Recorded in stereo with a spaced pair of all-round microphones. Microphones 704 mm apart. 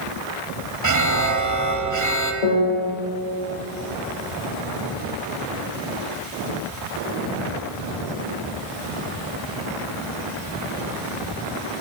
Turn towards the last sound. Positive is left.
turn(degrees=60)  # may be behind; listen again after turning